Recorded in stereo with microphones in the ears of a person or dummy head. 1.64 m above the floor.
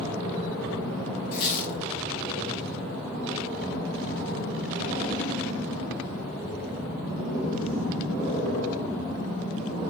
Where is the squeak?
25° left (ahead or behind), 0.6 m.